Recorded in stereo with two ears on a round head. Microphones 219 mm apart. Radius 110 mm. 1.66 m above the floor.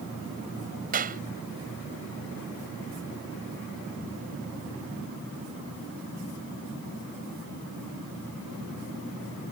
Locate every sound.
0.9 s a clap: 35° right (ahead or behind)